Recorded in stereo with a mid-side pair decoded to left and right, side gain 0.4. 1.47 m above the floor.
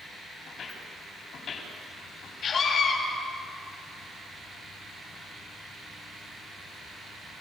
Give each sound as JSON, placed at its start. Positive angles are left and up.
{"t": 0.5, "sound": "footsteps", "azimuth_deg": 60, "distance_m": 9.5}
{"t": 2.4, "sound": "a scream", "azimuth_deg": 70, "distance_m": 7.5}